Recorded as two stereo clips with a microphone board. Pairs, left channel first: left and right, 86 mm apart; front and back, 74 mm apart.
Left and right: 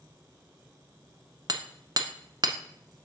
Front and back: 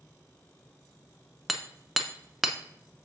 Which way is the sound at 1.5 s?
90° right.